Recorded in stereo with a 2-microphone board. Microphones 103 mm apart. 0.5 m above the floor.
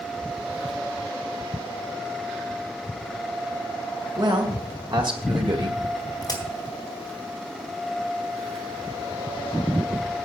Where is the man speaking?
45° right (ahead or behind), 2.5 m; by 5.8 s 50° right (ahead or behind), 1.4 m.